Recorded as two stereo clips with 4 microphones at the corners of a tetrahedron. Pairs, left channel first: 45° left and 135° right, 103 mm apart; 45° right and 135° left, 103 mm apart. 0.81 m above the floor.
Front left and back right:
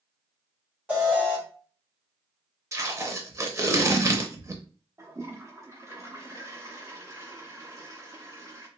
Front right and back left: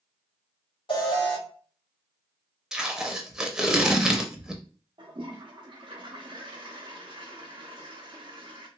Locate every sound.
0.9 s an alarm: 60° right, 2 m
2.7 s tape being pulled: 145° right, 0.6 m
5.0 s a toilet flushing: 165° left, 0.9 m